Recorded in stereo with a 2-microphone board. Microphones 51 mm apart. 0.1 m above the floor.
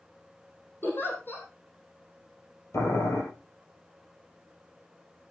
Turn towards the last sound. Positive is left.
turn(degrees=60)  # may be behind; listen again after turning